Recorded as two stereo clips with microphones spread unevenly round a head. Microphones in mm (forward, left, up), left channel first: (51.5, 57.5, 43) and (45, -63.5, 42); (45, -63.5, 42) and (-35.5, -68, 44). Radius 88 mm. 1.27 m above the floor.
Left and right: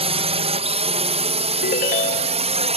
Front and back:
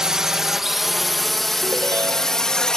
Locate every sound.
0.0 s a drone: 95° right; by 2.8 s 75° right
1.6 s a ringtone: 115° left